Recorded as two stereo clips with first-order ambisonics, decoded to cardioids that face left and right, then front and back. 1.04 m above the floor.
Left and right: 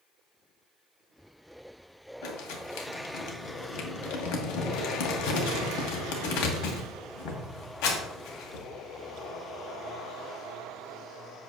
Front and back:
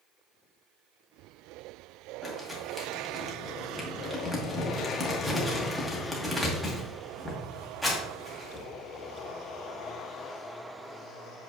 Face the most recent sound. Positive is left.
turn(degrees=90)